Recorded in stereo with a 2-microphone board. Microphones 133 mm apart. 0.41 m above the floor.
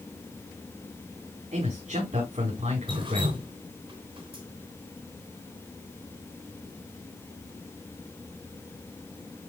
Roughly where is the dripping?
Right.